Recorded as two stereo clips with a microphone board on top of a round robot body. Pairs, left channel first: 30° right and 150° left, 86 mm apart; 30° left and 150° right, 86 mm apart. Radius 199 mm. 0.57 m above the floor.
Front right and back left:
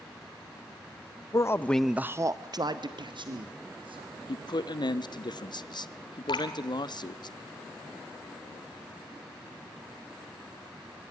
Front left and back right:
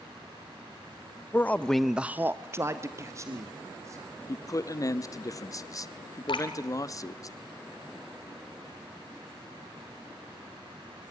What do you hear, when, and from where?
1.3 s a man speaking: 25° right, 1.1 m; by 4.2 s 160° left, 3 m
4.3 s a man speaking: 15° right, 1.3 m
6.3 s dripping: straight ahead, 2.5 m